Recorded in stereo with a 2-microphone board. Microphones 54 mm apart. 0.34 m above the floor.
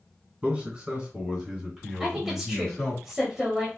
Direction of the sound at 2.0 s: 10° right (ahead or behind).